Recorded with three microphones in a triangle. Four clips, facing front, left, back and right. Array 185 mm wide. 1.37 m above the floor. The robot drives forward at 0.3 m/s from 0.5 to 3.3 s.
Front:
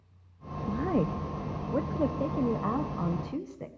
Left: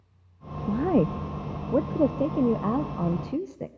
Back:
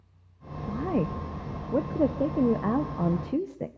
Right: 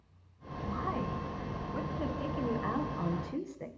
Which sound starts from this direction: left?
A woman speaking, at 0.7 s.